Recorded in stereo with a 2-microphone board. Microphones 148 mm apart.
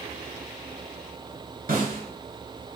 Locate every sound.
1.7 s a snare drum: 65° right (ahead or behind), 3.5 m